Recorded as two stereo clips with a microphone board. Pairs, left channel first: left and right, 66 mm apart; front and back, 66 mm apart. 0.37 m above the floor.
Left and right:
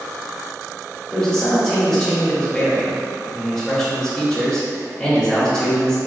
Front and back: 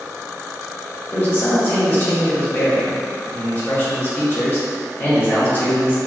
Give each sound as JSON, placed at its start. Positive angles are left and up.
{"t": 1.1, "sound": "a man speaking", "azimuth_deg": 15, "distance_m": 1.2}